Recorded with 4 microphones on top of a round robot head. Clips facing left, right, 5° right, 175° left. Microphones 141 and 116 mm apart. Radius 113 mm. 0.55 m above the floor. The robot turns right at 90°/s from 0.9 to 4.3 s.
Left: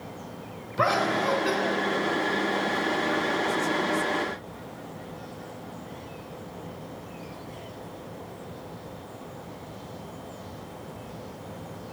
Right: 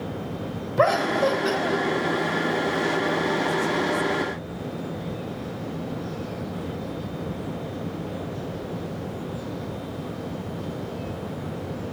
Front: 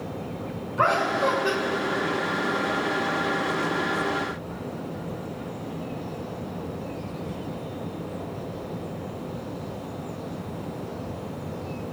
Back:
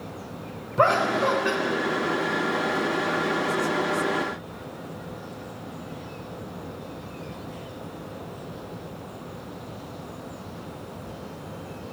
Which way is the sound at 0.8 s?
125° right.